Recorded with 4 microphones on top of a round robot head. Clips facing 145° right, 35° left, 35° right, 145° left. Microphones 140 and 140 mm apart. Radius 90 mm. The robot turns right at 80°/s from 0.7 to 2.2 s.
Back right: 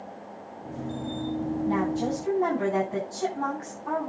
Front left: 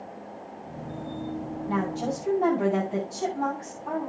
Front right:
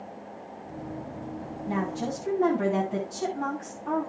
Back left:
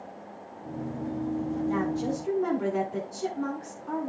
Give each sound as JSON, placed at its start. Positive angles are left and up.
{"t": 1.7, "sound": "a woman speaking", "azimuth_deg": -85, "distance_m": 8.5}